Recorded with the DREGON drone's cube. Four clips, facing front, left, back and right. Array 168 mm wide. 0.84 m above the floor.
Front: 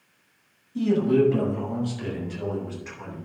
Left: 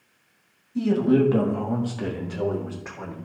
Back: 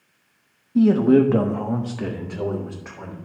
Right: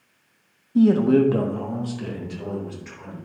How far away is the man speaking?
About 1.3 m.